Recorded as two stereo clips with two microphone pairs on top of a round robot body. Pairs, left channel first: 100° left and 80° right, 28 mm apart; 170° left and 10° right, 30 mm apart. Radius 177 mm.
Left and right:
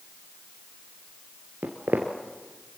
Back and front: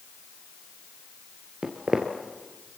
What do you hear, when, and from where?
1.6 s footsteps: 75° right, 1.0 m